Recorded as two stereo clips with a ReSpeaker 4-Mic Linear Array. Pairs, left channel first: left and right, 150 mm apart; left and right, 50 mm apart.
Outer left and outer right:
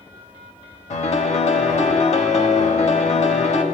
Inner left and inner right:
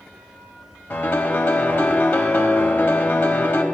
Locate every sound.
0.9 s a piano: 45° left (ahead or behind), 0.7 m